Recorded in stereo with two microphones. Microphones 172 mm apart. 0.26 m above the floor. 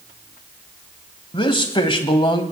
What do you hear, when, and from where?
1.3 s a man speaking: 30° left (ahead or behind), 1.2 m